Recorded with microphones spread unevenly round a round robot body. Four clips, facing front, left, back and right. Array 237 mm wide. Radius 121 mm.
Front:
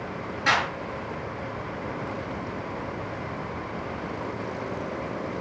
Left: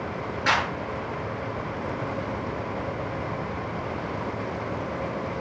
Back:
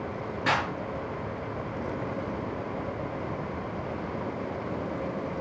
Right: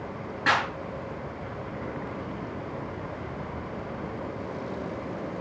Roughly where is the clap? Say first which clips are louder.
Even, front 3 dB; behind right.